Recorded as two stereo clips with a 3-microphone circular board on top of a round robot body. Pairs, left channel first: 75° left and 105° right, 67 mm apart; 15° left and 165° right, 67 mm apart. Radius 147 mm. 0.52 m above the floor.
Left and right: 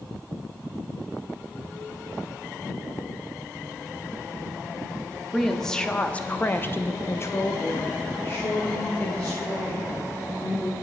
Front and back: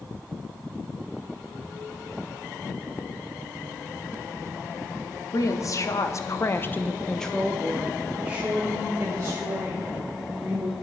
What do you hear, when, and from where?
5.3 s a woman speaking: 10° right, 1.2 m; by 10.7 s 135° left, 3 m